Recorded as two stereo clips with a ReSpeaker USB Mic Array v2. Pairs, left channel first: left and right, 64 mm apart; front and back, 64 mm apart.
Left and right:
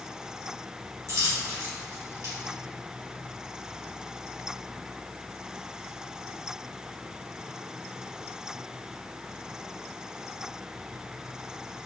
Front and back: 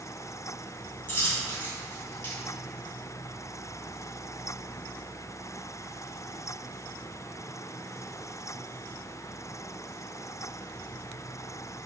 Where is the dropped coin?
55° right, 1.8 m.